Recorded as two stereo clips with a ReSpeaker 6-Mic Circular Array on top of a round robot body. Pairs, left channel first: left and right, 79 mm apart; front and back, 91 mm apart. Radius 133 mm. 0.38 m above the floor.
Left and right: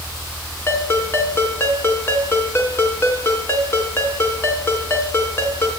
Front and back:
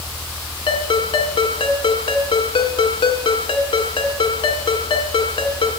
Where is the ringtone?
30° left, 3.5 m.